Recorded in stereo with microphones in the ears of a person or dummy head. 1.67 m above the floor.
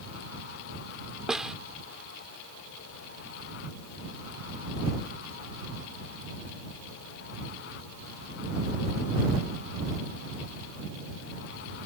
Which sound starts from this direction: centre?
A snare drum, at 1.3 s.